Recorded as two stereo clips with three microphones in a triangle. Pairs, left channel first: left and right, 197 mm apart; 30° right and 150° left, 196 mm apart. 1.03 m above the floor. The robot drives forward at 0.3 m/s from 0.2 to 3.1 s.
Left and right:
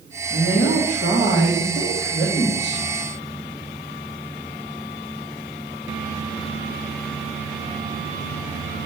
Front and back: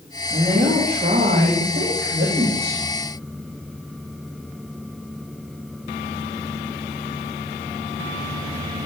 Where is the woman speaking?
90° left, 1.4 m; by 2.8 s 120° left, 1.6 m.